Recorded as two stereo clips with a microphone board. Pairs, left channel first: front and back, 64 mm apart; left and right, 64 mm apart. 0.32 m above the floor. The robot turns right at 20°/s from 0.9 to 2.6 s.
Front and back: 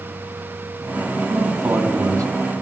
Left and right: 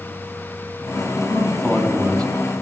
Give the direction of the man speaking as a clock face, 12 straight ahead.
7 o'clock.